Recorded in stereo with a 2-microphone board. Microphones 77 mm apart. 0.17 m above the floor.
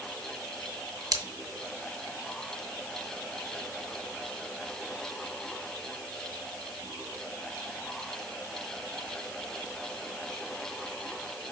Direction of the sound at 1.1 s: 50° right (ahead or behind).